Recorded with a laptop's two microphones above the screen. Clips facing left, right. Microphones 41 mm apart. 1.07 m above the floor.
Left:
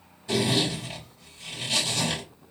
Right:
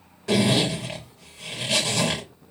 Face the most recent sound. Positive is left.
turn(degrees=-90)